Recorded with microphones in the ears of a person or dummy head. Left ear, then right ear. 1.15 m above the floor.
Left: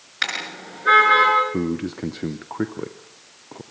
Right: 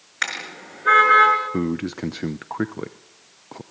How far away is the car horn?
About 6 m.